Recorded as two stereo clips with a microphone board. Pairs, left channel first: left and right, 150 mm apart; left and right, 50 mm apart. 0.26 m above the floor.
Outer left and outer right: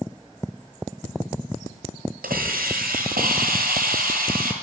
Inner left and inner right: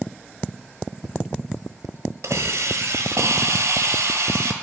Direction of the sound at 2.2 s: 80° right.